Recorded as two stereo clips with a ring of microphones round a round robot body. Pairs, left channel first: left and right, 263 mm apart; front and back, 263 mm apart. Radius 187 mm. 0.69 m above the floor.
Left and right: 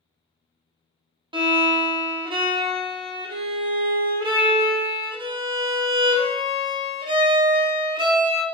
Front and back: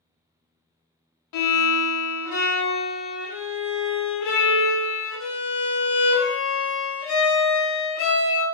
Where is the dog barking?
No dog barking in this recording.